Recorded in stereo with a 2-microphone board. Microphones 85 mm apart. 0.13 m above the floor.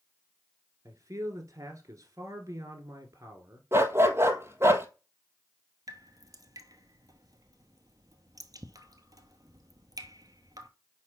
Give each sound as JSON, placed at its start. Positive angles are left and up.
{"t": 0.8, "sound": "a man speaking", "side_deg": -40, "distance_m": 1.6}
{"t": 3.7, "sound": "a dog barking", "side_deg": -30, "distance_m": 0.9}
{"t": 5.9, "sound": "dripping", "side_deg": -45, "distance_m": 0.9}